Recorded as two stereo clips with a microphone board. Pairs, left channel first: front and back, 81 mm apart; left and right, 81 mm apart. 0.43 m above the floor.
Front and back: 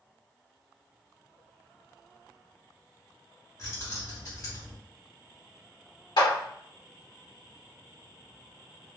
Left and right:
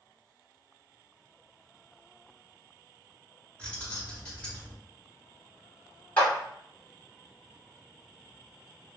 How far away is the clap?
About 2.0 m.